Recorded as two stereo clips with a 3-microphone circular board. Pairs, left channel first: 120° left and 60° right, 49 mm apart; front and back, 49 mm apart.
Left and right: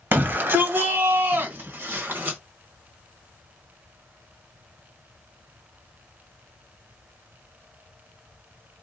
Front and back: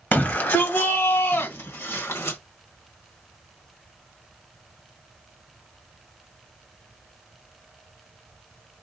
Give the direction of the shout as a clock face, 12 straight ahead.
1 o'clock.